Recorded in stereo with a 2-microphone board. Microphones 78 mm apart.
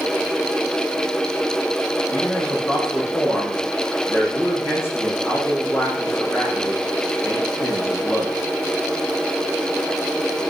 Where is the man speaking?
30° left (ahead or behind), 6.5 m.